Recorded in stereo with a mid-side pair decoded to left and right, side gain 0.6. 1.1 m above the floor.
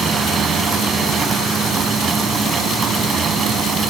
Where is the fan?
35° right.